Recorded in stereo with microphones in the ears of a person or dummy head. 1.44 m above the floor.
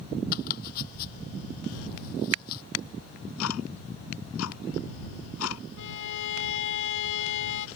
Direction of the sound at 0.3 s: 50° left (ahead or behind).